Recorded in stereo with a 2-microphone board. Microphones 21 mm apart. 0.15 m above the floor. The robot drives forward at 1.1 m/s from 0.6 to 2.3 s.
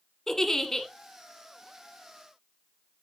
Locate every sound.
0.3 s a giggle: 20° left (ahead or behind), 1.3 m